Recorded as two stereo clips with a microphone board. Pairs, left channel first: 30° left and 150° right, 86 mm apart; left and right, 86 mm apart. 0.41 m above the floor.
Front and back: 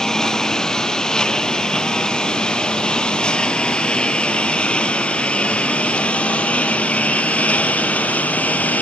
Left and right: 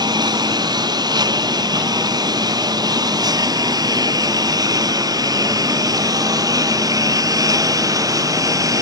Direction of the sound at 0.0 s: 55° right.